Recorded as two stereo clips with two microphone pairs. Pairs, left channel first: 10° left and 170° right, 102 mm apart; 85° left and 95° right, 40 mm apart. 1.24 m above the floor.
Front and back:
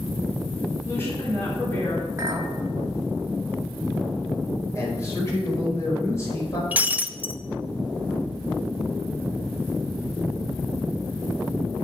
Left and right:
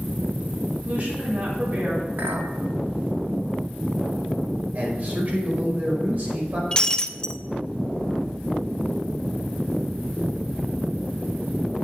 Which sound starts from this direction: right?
A clink, at 2.2 s.